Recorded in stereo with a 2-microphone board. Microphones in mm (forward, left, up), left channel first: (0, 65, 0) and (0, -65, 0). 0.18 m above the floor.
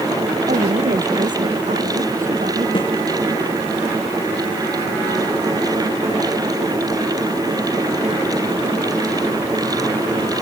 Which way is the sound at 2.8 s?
40° left (ahead or behind).